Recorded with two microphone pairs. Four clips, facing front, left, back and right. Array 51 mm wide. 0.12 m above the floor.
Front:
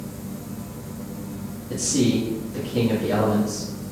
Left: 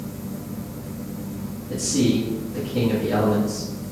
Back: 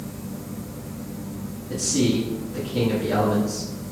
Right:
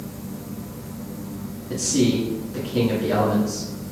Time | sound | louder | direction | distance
1.7 | a man speaking | even, front 1 dB | 85° right | 1.8 m